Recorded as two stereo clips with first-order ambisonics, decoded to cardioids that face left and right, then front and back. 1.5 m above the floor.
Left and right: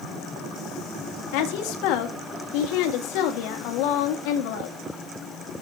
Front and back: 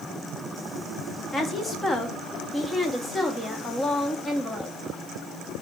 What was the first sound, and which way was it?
A woman speaking, 80° left.